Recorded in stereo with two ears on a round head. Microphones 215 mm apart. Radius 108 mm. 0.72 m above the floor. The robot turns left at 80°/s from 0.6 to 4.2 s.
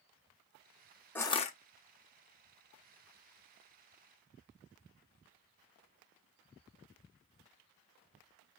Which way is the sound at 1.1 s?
170° left.